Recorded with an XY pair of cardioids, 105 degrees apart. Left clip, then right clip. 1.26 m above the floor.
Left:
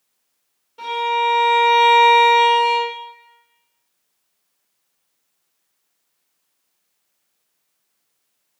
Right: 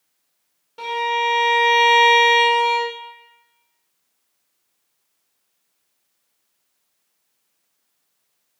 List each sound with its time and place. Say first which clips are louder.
0.8 s a violin: left 1 dB; 50° right, 1.2 m